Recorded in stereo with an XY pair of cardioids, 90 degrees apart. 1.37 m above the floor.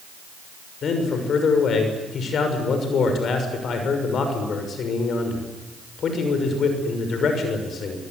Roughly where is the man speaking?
Ahead left.